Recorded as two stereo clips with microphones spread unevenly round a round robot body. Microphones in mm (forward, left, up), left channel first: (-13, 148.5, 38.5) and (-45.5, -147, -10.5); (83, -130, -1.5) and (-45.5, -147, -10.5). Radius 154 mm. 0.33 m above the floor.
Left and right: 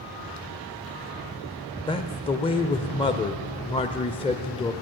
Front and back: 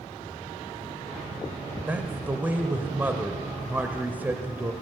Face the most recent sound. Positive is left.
turn(degrees=150)